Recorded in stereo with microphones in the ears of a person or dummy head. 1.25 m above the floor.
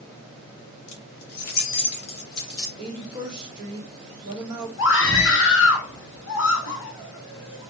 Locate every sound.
0.9 s keys jangling: 65° left (ahead or behind), 1.1 m; by 2.7 s 20° left (ahead or behind), 1.2 m
2.8 s a woman speaking: 25° right (ahead or behind), 0.9 m
4.8 s a scream: 65° left (ahead or behind), 1.2 m